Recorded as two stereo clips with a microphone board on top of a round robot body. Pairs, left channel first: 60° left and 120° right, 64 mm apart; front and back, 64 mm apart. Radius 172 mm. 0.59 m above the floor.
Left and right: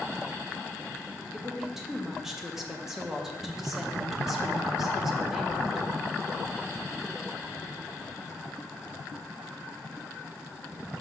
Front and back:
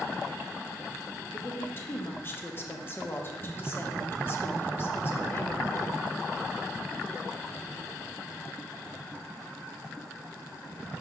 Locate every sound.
1.3 s a woman speaking: 40° right, 1.5 m